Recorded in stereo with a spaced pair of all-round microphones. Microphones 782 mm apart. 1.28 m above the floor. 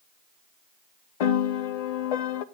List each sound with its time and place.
1.2 s a piano: 55° left (ahead or behind), 0.5 m